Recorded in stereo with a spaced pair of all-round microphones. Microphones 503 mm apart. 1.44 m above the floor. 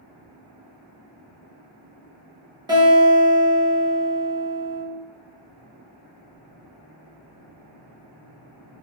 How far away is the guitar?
About 1.1 m.